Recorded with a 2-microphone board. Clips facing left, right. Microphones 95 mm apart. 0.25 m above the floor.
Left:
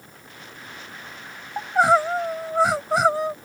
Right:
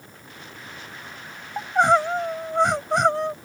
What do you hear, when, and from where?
1.6 s crying: 5° left (ahead or behind)